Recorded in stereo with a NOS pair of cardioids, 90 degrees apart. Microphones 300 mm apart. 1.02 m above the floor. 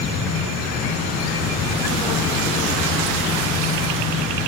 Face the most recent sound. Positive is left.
turn(degrees=50)